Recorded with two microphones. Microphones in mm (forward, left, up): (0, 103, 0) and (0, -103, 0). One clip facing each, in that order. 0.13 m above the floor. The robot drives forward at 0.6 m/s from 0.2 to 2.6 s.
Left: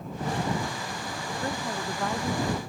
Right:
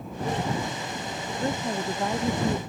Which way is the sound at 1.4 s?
25° right (ahead or behind).